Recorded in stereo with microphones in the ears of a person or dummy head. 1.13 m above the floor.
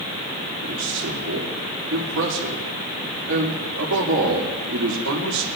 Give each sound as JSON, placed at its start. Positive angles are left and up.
{"t": 0.6, "sound": "a man speaking", "side_deg": -65, "distance_m": 2.5}